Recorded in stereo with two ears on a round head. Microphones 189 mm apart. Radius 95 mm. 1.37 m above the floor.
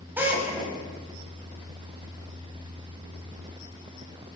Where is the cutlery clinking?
I don't hear cutlery clinking.